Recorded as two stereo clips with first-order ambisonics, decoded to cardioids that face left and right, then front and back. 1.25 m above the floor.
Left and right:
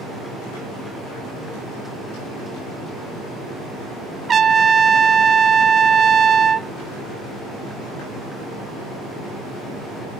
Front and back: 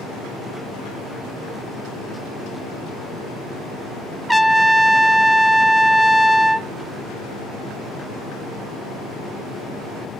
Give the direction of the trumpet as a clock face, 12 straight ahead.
3 o'clock.